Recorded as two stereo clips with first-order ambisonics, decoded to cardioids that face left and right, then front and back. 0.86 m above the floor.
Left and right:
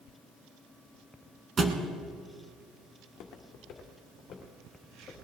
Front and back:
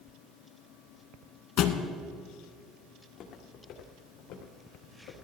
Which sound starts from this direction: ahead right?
A thud, at 1.6 s.